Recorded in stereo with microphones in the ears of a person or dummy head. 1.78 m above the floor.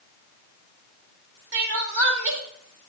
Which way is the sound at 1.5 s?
60° right (ahead or behind).